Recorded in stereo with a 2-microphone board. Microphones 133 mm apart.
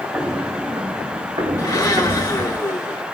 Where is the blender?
30° left (ahead or behind), 2.5 m.